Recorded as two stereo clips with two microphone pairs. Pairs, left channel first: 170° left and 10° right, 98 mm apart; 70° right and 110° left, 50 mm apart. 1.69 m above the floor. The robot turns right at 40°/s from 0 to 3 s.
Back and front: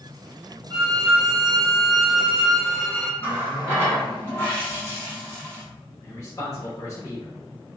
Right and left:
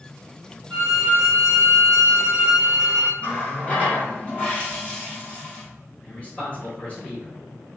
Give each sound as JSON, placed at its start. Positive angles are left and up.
{"t": 0.7, "sound": "a violin", "azimuth_deg": 95, "distance_m": 1.5}
{"t": 3.2, "sound": "a running tap", "azimuth_deg": -125, "distance_m": 1.3}
{"t": 6.0, "sound": "a man speaking", "azimuth_deg": -130, "distance_m": 0.9}